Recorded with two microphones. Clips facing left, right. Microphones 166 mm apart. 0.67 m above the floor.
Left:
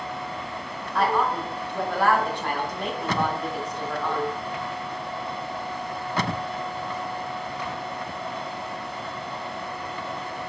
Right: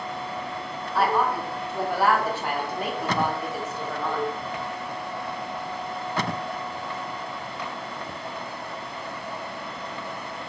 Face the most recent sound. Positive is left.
turn(degrees=-5)  # may be behind; listen again after turning